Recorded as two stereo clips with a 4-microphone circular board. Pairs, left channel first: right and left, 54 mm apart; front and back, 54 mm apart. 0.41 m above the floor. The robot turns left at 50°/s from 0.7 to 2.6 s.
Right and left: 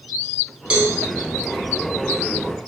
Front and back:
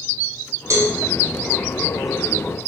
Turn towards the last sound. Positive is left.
turn(degrees=65)